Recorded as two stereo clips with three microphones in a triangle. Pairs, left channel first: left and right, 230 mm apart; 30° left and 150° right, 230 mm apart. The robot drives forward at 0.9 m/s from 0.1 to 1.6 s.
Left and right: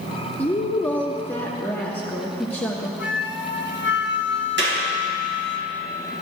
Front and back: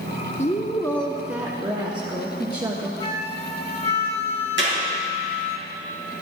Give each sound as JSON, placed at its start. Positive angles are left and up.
{"t": 0.4, "sound": "a woman speaking", "azimuth_deg": 15, "distance_m": 1.1}
{"t": 3.0, "sound": "a flute", "azimuth_deg": 85, "distance_m": 0.8}
{"t": 4.6, "sound": "a clap", "azimuth_deg": -120, "distance_m": 3.0}